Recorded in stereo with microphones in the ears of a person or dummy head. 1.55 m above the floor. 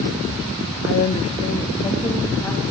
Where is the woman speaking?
50° left (ahead or behind), 0.5 m; by 2.7 s 10° left (ahead or behind), 2.5 m.